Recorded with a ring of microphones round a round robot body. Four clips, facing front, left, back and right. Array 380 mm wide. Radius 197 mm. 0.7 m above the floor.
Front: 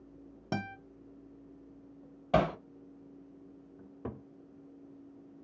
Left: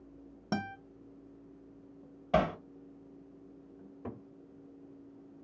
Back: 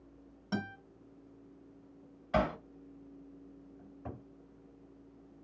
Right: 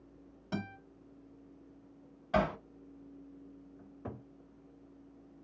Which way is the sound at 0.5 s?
45° left.